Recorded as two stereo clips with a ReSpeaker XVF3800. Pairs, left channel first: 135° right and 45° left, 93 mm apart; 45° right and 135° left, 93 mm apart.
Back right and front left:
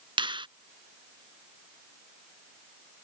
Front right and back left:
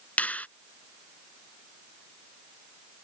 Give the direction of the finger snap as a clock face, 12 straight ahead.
11 o'clock.